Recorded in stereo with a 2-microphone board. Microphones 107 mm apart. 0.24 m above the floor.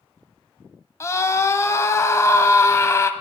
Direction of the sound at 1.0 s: 30° left (ahead or behind).